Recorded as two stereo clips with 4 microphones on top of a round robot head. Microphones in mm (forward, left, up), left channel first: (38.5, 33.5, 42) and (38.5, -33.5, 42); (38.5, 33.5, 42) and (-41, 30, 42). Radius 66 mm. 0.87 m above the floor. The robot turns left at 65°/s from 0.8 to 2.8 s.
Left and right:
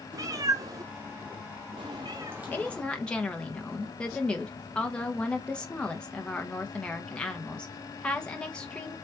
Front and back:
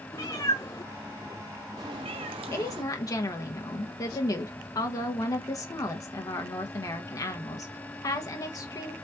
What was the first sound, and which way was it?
A cat meowing, 60° right.